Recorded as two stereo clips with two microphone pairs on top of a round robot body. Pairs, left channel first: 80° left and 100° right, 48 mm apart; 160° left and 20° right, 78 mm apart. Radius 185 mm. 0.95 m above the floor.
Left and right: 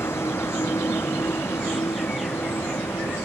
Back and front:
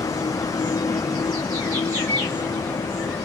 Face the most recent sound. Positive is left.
turn(degrees=110)